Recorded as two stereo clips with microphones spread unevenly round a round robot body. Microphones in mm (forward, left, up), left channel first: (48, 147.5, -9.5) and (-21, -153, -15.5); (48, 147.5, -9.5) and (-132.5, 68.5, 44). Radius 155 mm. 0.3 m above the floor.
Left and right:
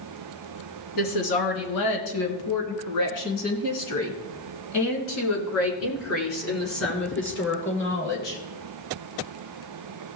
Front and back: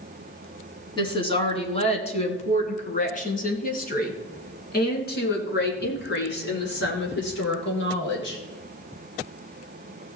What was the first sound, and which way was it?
A woman speaking, 85° left.